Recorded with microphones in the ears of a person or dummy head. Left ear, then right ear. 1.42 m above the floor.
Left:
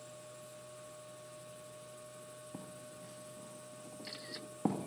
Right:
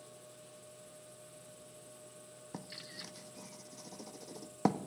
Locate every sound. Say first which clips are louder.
0.0 s a machine running: left 3 dB; 35° left (ahead or behind), 7.5 m
2.5 s writing: right 3 dB; 60° right (ahead or behind), 1.3 m